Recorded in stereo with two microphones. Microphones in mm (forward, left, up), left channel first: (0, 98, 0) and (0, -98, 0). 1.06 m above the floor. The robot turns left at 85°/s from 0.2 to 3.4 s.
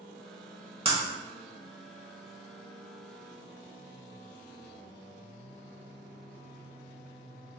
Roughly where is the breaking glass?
Right.